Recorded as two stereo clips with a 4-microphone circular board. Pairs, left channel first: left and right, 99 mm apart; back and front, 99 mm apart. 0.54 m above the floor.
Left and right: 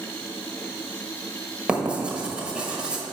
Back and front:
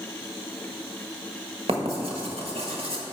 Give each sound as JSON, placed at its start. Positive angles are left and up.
{"t": 1.7, "sound": "writing", "azimuth_deg": -10, "distance_m": 1.4}